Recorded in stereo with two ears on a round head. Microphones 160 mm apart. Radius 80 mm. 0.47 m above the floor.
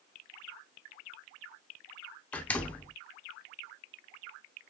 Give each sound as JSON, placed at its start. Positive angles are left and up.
{"t": 2.3, "sound": "a door slam", "side_deg": 10, "distance_m": 0.6}